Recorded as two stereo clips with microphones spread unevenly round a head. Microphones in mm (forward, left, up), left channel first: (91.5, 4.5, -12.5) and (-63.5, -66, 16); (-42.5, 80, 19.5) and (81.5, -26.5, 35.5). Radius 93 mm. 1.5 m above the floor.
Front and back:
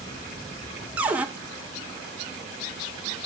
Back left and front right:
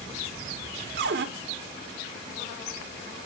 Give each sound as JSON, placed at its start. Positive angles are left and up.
{"t": 1.0, "sound": "a cupboard door", "azimuth_deg": -70, "distance_m": 1.2}